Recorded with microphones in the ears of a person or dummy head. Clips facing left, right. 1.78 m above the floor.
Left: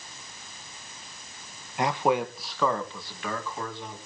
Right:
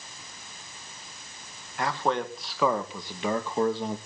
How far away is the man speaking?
About 1.8 m.